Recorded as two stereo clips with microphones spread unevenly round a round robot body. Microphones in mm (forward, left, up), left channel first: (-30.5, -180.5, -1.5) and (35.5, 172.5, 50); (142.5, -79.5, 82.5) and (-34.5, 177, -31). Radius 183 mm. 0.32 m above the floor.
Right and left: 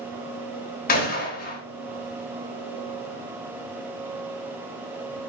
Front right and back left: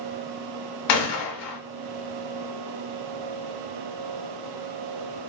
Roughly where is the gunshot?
Ahead right.